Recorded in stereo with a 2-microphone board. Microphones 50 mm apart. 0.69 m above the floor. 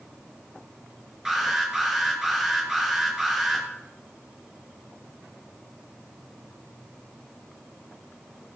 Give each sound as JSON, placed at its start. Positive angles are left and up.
{"t": 1.2, "sound": "an alarm", "side_deg": -10, "distance_m": 6.5}